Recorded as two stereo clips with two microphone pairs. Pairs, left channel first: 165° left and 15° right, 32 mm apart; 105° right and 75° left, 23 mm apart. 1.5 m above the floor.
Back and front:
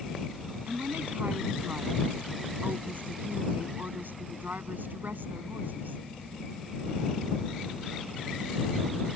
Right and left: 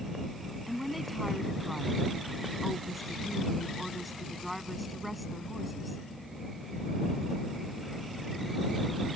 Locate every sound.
0.7 s a woman speaking: 20° right